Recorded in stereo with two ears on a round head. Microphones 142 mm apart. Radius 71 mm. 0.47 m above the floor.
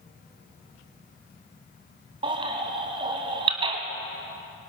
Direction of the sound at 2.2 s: 35° right (ahead or behind).